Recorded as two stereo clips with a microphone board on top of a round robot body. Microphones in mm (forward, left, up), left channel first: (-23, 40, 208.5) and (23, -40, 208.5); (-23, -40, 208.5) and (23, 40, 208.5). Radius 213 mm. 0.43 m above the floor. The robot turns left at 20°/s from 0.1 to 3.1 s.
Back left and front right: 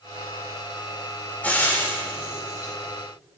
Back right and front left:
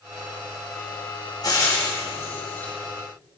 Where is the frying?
165° right, 5 m; by 2.7 s 170° left, 5 m.